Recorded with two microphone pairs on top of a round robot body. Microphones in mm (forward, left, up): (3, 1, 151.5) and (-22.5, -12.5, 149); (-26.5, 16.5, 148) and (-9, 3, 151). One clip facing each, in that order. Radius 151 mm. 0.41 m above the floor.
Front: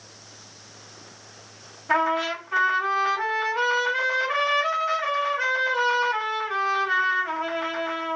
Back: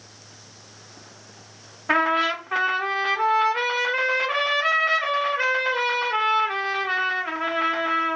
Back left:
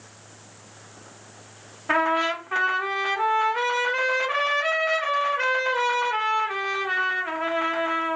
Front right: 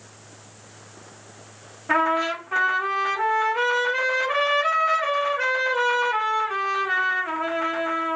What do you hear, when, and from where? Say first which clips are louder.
1.9 s a trumpet: back 2 dB, front right 1 dB; 170° right, 1.7 m